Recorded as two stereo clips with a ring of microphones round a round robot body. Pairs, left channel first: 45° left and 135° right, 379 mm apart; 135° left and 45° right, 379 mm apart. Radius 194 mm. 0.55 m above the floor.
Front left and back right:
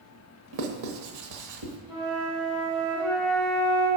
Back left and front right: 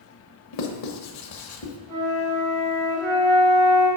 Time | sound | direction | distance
0.5 | writing | straight behind | 0.9 m
1.9 | a flute | 40° right | 3 m